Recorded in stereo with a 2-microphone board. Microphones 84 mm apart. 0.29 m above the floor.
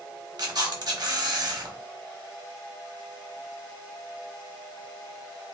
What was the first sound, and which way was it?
A camera shutter, 55° right (ahead or behind).